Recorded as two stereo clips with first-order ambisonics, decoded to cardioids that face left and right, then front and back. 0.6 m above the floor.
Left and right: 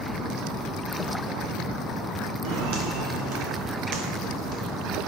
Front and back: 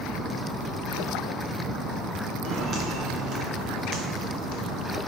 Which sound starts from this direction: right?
Footsteps, at 2.4 s.